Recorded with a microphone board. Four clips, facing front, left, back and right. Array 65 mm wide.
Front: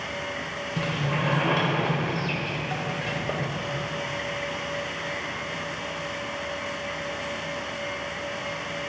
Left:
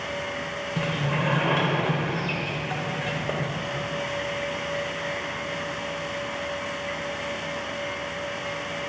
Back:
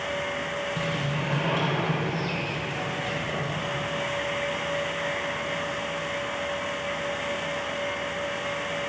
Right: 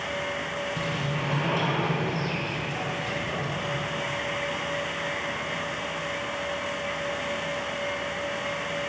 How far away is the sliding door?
About 2.5 m.